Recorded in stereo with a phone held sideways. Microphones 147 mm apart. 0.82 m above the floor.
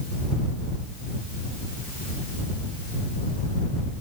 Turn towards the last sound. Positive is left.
No sound to turn to.